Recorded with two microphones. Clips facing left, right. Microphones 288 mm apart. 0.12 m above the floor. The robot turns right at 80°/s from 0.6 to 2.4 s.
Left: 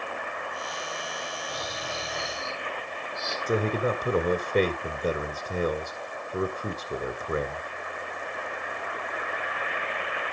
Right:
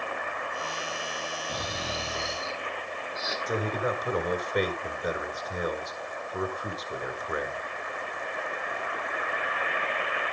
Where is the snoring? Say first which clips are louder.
Right 2 dB; 80° right, 1.8 m; by 3.4 s 5° right, 1.8 m.